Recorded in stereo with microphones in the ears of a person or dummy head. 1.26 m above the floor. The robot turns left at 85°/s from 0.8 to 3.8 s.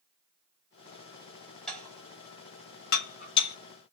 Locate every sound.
1.7 s dishes clattering: centre (ahead or behind), 1.0 m; by 3.6 s 20° left (ahead or behind), 1.0 m